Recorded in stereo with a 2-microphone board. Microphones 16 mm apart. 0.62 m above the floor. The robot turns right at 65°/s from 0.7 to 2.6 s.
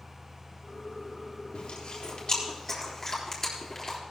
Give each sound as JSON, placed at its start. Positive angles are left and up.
{"t": 1.5, "sound": "chewing", "side_deg": 85, "distance_m": 3.5}